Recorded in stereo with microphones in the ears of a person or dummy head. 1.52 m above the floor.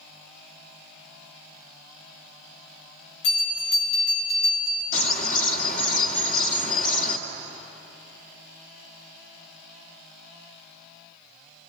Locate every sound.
3.2 s a bell: 65° left (ahead or behind), 3.5 m
4.9 s a bird: 50° left (ahead or behind), 2 m